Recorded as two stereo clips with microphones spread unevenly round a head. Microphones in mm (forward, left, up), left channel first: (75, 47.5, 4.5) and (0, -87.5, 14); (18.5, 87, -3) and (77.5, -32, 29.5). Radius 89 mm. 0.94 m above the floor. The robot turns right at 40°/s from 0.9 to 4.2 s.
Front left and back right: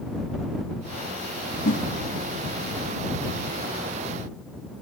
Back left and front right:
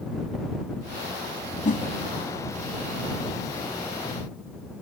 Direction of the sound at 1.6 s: 85° left.